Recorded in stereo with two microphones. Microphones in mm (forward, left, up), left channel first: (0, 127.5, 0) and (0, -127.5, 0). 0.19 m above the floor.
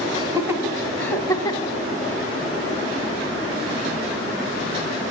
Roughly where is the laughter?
Centre.